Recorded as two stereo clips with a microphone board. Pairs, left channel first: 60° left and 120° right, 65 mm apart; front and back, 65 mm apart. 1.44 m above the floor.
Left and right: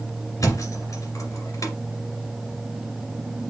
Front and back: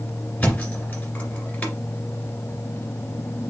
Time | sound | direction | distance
0.4 | a thud | 65° left | 2 m